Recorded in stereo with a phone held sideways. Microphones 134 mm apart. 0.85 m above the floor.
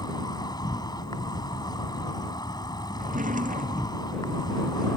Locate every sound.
0.0 s an insect: 30° left (ahead or behind)
3.0 s a drawer: 85° right